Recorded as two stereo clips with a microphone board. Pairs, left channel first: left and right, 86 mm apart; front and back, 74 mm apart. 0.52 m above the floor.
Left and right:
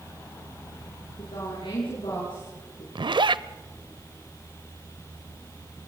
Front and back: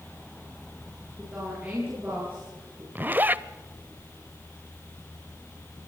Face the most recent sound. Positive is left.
turn(degrees=-115)